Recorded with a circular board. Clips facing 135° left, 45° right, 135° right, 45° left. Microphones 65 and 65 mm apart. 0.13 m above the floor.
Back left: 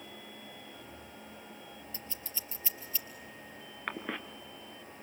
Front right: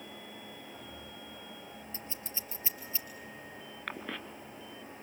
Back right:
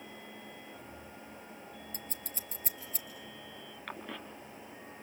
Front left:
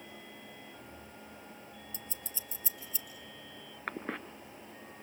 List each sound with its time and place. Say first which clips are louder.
1.9 s scissors: front right 2 dB, back right 2 dB; 110° right, 3.5 m
3.9 s a cough: back left 3 dB, front left 5 dB; 65° left, 2 m